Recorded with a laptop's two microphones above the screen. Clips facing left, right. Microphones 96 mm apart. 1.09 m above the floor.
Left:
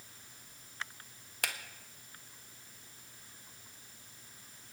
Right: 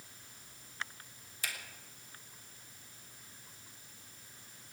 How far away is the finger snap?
About 1.3 m.